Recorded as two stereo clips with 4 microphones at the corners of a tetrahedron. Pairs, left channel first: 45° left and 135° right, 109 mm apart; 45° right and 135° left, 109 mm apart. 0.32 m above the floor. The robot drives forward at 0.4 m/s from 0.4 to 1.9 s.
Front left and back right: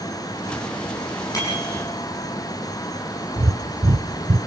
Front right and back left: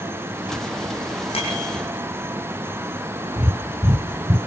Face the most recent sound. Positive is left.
turn(degrees=-160)